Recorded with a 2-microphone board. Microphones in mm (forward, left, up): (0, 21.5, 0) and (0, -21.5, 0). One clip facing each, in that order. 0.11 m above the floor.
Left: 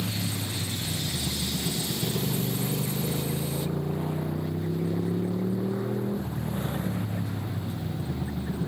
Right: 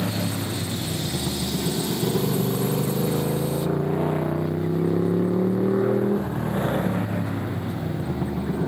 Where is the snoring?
I don't hear snoring.